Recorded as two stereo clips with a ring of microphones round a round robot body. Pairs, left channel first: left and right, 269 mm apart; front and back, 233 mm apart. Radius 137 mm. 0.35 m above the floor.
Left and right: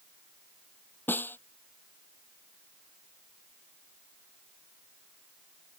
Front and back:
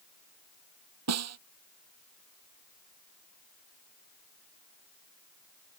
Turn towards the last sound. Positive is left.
turn(degrees=175)